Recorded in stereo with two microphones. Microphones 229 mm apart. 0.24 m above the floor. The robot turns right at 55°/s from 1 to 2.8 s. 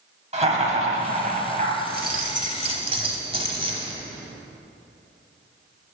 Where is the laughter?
115° right, 1.4 m; by 1.7 s 80° right, 1.4 m.